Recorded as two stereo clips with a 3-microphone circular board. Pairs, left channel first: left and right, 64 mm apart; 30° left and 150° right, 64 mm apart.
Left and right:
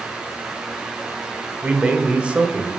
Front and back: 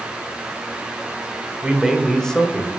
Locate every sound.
1.6 s a man speaking: 115° right, 1.1 m; by 2.7 s 20° right, 1.4 m